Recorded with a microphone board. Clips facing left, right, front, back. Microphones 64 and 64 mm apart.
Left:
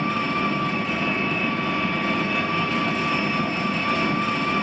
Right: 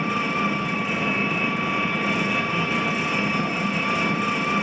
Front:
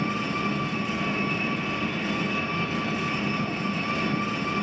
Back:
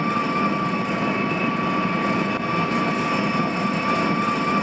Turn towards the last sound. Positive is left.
turn(degrees=-170)